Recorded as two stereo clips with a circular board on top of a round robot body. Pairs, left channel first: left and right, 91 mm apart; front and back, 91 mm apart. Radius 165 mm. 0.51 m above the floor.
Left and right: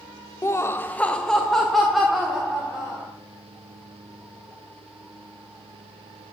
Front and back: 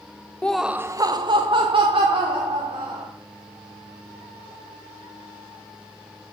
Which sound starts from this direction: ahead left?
Laughter, at 0.4 s.